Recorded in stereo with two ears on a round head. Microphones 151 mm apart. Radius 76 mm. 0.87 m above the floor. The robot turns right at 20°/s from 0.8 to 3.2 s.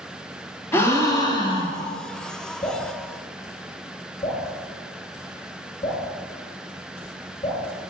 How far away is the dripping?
About 1.8 m.